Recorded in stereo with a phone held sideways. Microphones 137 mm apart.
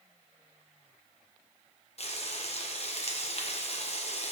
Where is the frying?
50° left (ahead or behind), 1.0 m.